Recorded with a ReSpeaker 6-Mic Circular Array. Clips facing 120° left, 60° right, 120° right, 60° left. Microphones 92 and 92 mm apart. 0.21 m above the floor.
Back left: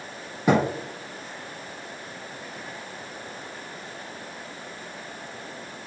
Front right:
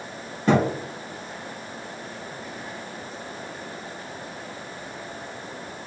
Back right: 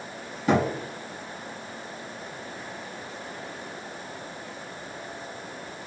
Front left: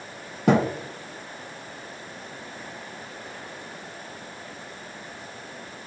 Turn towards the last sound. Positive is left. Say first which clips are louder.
# front right 1 dB, front left 3 dB
turn(degrees=45)